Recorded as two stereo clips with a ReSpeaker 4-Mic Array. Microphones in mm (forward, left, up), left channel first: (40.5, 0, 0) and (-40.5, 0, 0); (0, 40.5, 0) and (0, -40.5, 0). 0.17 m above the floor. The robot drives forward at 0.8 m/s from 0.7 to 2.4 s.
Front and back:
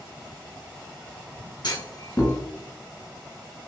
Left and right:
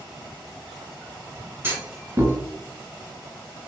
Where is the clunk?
30° right, 1.1 m; by 2.4 s 60° right, 0.8 m.